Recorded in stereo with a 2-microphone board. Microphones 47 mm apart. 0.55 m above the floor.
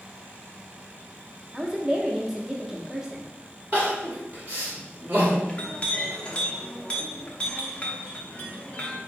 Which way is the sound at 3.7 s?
35° right (ahead or behind).